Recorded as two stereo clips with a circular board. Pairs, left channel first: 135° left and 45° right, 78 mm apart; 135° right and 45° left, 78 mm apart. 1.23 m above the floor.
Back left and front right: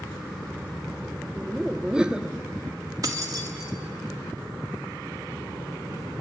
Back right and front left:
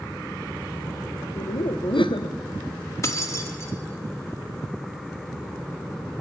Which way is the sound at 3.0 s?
85° right.